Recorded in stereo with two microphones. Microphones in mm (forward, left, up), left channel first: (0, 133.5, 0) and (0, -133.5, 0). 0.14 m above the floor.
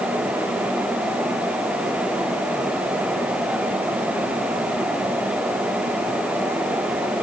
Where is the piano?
I don't hear a piano.